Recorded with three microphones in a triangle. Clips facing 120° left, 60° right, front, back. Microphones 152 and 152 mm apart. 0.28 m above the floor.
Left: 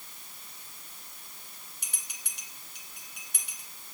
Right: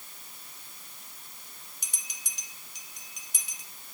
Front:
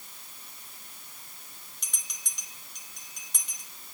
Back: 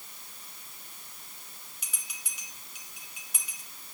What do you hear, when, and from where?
1.8 s a bell: 95° left, 2 m